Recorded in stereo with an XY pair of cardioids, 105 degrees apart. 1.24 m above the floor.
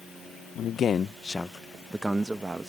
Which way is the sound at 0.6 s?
65° left.